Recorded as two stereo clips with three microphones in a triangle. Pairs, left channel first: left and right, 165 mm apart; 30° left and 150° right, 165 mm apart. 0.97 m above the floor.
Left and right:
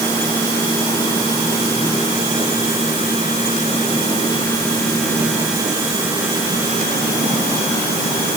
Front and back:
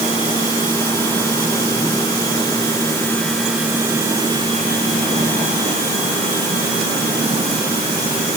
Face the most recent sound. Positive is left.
No sound to turn to.